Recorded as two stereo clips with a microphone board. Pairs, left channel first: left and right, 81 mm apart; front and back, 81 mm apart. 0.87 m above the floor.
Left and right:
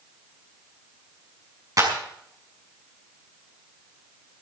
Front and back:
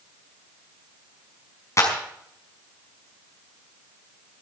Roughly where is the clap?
Ahead right.